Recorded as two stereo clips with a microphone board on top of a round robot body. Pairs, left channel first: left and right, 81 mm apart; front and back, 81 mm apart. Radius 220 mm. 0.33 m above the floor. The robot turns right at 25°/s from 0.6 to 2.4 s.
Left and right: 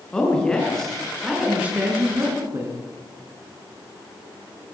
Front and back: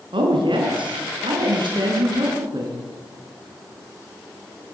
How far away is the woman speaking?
About 7 m.